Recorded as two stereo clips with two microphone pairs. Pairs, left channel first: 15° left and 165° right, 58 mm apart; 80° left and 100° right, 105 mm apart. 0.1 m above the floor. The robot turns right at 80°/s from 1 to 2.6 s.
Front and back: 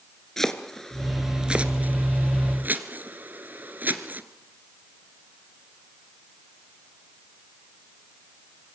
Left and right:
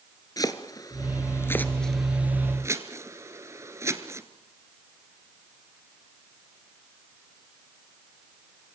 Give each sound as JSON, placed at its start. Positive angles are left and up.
{"t": 0.4, "sound": "chopping", "azimuth_deg": 95, "distance_m": 1.7}